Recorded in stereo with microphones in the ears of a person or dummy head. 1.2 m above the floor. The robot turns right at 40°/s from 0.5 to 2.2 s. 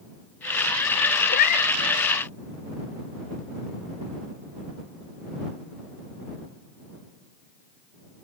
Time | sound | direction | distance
1.3 | a cat meowing | 50° left (ahead or behind) | ?